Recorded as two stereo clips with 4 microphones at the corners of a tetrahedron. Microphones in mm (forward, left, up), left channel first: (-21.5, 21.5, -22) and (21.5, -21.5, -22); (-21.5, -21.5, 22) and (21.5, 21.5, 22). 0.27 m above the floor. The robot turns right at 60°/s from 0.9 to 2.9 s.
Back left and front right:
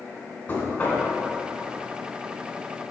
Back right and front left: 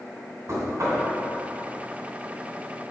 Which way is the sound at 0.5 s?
70° left.